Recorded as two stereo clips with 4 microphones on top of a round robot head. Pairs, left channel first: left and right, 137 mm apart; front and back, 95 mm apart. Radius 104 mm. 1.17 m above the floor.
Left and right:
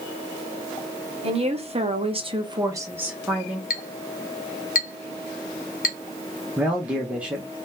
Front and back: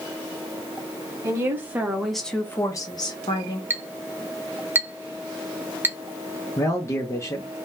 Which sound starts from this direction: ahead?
A man speaking, at 6.6 s.